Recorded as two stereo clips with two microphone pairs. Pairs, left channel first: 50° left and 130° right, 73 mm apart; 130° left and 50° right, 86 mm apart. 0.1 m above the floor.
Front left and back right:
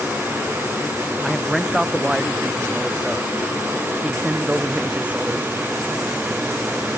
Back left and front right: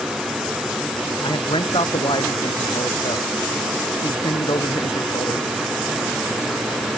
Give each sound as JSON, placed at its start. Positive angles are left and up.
{"t": 1.2, "sound": "a man speaking", "azimuth_deg": 145}